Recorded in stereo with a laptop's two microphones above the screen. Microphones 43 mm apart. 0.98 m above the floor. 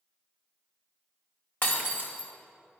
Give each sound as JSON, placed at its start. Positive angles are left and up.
{"t": 1.6, "sound": "breaking glass", "side_deg": 45, "distance_m": 1.6}